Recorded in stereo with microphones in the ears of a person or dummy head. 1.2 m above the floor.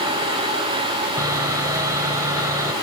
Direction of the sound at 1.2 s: 15° right (ahead or behind).